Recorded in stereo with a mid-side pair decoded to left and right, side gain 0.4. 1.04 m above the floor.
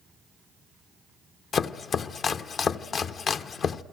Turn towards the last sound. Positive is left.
turn(degrees=60)